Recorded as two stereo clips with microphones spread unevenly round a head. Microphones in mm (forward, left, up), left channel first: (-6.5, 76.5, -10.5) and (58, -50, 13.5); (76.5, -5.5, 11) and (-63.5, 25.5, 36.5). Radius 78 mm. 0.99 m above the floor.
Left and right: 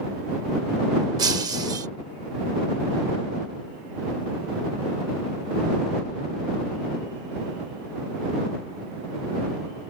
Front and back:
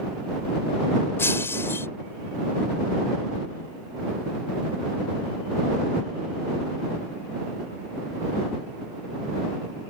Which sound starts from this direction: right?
Breaking glass, at 1.2 s.